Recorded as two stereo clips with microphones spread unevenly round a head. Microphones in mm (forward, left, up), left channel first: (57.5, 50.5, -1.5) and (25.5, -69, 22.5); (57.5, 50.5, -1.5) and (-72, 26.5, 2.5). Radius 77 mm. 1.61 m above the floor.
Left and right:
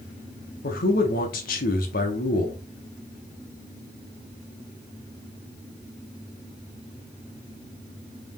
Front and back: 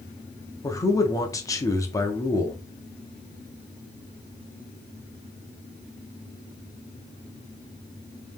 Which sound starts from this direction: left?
A man speaking, at 0.6 s.